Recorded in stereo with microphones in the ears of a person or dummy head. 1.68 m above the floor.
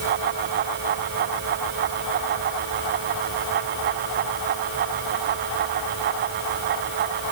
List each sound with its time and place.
Only background noise.